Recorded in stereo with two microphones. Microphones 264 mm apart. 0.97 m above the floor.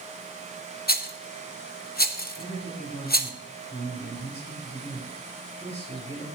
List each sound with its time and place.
0.9 s a rattle: 35° left (ahead or behind), 0.7 m
2.4 s a man speaking: 20° left (ahead or behind), 5.5 m